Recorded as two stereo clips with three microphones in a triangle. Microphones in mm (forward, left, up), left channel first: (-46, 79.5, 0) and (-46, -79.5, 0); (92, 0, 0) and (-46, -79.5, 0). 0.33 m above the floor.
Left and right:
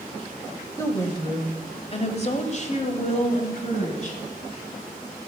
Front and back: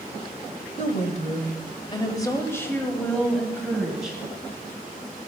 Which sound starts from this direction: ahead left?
A woman speaking, at 0.8 s.